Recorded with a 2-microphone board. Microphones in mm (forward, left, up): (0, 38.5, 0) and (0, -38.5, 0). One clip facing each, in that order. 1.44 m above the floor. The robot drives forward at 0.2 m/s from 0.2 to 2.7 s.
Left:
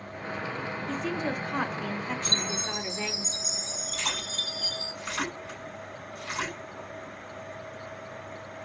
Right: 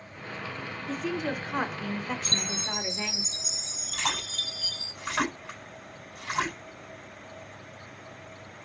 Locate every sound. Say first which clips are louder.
0.9 s a woman speaking: right 1 dB; 5° right (ahead or behind), 1.0 m; by 3.2 s centre (ahead or behind), 1.4 m
2.2 s a chime: left 2 dB; 35° left (ahead or behind), 1.1 m; by 4.9 s 30° left (ahead or behind), 1.1 m
3.9 s a splash: right 4 dB; 55° right (ahead or behind), 4 m